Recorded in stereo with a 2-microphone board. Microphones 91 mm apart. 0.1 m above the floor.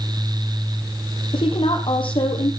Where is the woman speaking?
70° left (ahead or behind), 3.5 m.